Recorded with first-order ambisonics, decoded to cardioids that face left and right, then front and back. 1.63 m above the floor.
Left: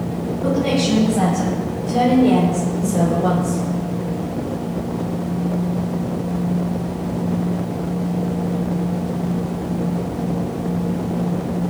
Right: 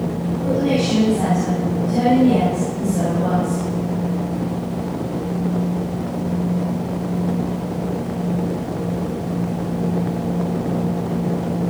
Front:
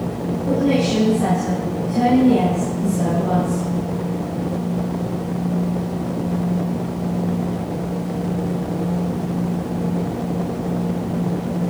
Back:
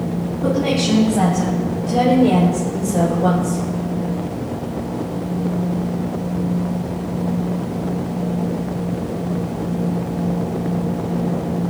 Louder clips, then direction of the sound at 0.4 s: Even, even; 145° left.